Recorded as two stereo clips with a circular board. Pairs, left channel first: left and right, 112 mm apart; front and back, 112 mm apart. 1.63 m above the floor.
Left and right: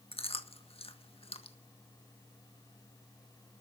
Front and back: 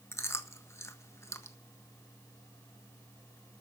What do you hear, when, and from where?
0.1 s chewing: 65° left, 1.5 m